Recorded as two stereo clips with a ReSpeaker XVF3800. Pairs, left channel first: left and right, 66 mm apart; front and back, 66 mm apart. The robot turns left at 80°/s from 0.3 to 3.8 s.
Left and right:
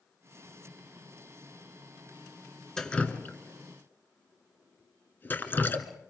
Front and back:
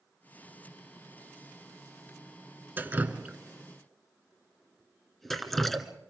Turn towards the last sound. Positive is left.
turn(degrees=80)